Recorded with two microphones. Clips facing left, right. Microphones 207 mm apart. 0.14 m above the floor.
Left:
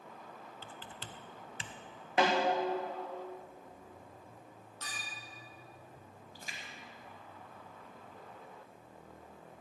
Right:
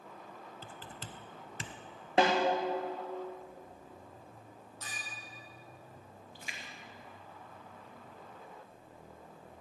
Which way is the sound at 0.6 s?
45° right (ahead or behind).